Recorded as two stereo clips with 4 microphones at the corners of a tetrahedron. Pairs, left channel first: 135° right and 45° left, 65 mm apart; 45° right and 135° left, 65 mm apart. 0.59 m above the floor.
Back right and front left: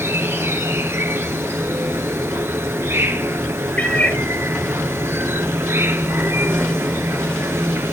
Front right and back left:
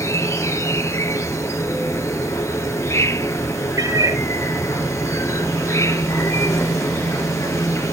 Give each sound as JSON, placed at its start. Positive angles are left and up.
{"t": 0.0, "sound": "an insect", "azimuth_deg": -5, "distance_m": 1.6}
{"t": 3.8, "sound": "a cat meowing", "azimuth_deg": 160, "distance_m": 3.5}